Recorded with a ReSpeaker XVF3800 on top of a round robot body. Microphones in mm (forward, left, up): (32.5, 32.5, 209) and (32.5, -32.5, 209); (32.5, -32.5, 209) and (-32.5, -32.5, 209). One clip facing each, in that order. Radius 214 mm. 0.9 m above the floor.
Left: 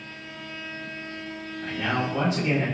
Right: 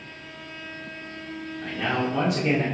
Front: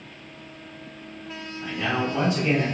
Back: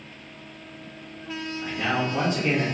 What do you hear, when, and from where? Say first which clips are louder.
1.6 s a man speaking: right 1 dB, front 1 dB; 110° right, 2.5 m